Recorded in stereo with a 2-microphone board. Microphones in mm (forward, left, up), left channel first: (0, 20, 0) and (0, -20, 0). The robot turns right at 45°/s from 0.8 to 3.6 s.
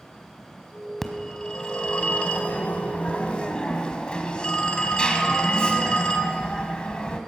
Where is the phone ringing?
15° left, 1.1 m; by 7.2 s 135° left, 1.1 m.